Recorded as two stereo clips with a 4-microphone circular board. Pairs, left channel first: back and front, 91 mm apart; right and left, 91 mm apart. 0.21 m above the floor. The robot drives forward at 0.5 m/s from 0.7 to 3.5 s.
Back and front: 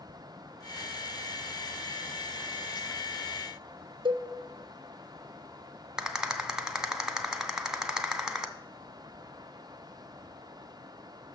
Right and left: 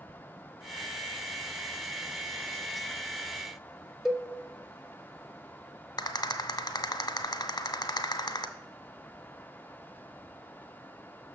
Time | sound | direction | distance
4.0 | a cowbell | 5° left | 0.5 m
6.0 | a rattle | 80° right | 0.6 m